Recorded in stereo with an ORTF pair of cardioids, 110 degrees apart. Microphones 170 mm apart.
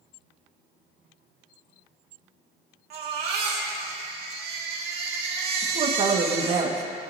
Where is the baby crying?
65° right, 2.5 m.